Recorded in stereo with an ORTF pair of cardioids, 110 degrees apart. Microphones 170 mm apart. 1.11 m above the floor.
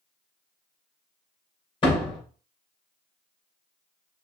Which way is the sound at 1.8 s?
30° left.